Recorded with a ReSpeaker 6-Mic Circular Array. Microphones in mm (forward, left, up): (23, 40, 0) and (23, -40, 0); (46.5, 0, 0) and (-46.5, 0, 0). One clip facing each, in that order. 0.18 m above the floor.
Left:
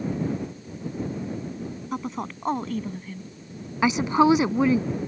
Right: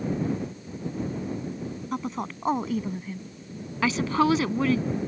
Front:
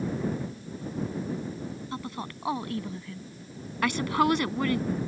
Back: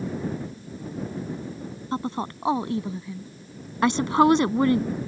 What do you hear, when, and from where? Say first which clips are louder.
1.9 s a woman speaking: even, back 7 dB; 175° left; by 3.3 s 140° right
3.8 s a woman speaking: left 4 dB, back 6 dB; 145° left